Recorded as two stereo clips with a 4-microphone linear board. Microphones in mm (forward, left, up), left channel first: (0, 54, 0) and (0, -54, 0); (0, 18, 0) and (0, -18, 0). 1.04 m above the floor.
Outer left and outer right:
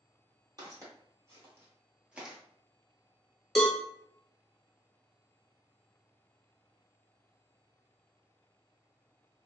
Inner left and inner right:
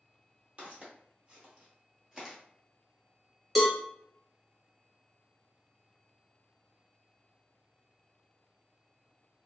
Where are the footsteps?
35° right (ahead or behind), 1.4 m; by 2.4 s 5° right (ahead or behind), 1.0 m.